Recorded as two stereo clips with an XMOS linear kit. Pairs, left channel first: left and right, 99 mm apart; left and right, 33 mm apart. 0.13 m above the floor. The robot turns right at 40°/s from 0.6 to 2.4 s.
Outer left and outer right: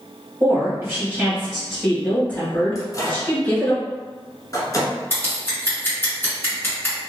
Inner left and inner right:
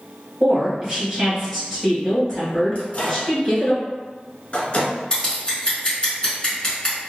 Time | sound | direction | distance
0.4 | a woman speaking | 45° right | 1.7 m
2.8 | a microwave | 35° left (ahead or behind) | 1.0 m
5.1 | scissors | 25° left (ahead or behind) | 1.3 m